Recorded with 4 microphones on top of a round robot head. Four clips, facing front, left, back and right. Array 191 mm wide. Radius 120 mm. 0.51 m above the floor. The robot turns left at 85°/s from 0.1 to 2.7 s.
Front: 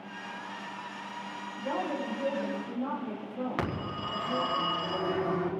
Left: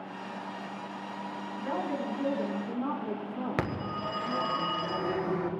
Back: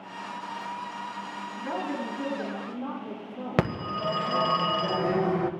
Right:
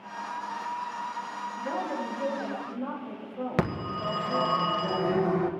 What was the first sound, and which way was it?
A woman speaking, 155° right.